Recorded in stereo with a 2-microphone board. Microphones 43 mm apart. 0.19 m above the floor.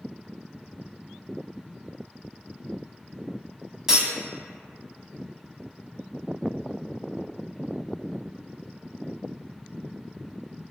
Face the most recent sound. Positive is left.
turn(degrees=-15)  # may be behind; listen again after turning